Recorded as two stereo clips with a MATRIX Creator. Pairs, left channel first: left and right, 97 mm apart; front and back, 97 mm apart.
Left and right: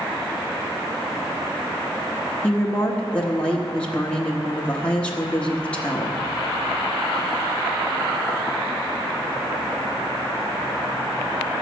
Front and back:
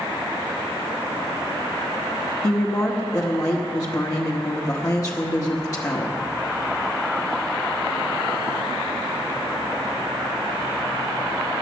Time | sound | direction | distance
2.4 | a woman speaking | 20° left | 1.1 m